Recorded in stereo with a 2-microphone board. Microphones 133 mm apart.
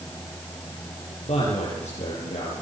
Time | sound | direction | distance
1.2 | a man speaking | 60° left (ahead or behind) | 8.5 m